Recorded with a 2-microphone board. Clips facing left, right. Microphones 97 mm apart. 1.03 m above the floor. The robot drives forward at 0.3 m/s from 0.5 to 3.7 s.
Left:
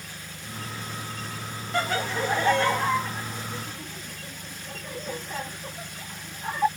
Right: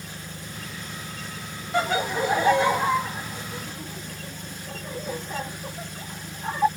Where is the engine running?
30° right (ahead or behind).